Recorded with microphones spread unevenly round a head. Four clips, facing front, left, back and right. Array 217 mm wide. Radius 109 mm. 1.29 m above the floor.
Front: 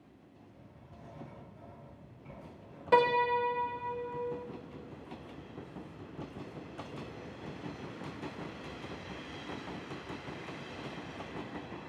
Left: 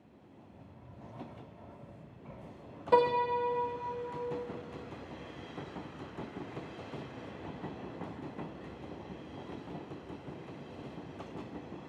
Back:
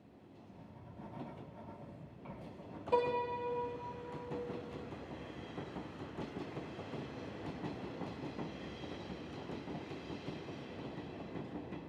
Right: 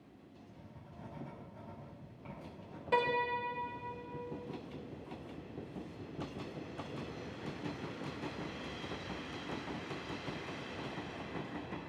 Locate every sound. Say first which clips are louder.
0.5 s writing: left 1 dB, back 3 dB; 110° right, 7 m
2.9 s a piano: left 6 dB, front 7 dB; 35° left, 0.6 m